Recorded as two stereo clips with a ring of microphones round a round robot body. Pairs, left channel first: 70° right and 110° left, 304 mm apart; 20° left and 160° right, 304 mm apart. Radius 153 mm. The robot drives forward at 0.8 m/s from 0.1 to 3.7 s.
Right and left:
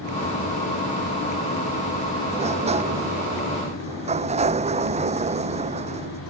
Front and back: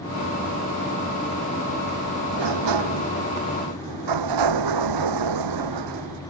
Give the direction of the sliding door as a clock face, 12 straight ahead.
6 o'clock.